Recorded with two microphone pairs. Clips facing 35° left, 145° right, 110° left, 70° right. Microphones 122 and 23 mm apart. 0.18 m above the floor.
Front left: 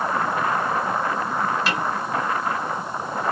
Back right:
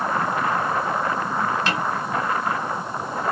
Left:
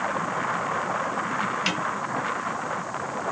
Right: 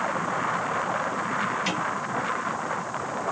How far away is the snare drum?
About 2 m.